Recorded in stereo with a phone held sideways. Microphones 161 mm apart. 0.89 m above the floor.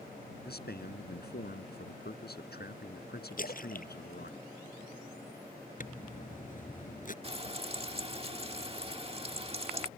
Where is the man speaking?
80° left.